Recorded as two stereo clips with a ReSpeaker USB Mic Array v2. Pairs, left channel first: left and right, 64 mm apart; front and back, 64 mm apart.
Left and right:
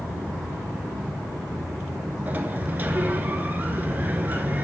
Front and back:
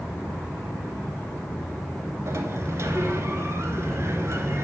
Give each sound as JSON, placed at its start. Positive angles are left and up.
{"t": 2.3, "sound": "a sliding door", "azimuth_deg": -145, "distance_m": 0.6}